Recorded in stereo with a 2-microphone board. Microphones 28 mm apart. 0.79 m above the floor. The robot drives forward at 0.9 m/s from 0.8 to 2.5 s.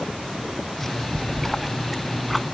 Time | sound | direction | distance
1.1 | a splash | centre (ahead or behind) | ?